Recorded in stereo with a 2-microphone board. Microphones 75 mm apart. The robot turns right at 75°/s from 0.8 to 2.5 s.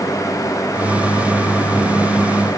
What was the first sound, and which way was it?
Only background noise.